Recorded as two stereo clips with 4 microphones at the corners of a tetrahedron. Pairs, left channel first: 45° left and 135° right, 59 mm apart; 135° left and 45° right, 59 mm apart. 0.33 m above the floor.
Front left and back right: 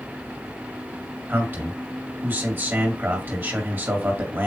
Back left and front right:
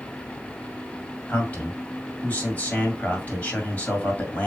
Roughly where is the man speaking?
Behind.